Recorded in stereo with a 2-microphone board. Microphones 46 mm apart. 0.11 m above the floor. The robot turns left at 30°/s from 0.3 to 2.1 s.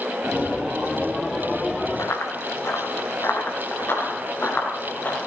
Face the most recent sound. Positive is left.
turn(degrees=45)  # may be behind; listen again after turning